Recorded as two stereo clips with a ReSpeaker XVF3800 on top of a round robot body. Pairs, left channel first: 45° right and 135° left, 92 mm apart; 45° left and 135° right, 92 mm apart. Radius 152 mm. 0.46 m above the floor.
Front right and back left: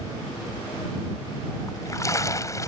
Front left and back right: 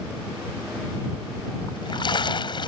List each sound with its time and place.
1.7 s a splash: 10° left